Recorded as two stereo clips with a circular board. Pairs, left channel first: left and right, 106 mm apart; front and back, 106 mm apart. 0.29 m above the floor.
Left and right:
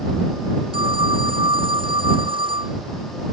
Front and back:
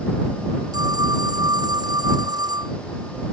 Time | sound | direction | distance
0.7 | a phone ringing | 130° right | ?